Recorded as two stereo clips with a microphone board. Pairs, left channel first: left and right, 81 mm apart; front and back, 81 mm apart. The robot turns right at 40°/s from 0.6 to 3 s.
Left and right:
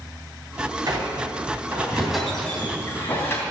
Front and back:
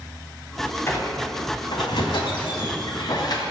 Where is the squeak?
55° right, 2.5 m; by 3.4 s 30° left, 2.5 m.